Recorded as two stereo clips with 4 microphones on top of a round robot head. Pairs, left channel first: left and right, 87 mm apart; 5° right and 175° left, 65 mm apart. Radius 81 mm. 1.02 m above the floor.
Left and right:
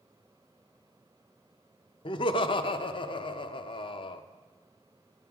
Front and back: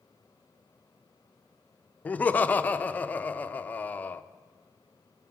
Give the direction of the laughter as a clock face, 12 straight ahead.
10 o'clock.